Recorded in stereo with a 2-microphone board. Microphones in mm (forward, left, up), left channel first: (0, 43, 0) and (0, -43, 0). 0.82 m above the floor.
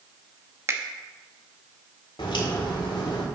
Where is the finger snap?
30° right (ahead or behind), 0.9 m.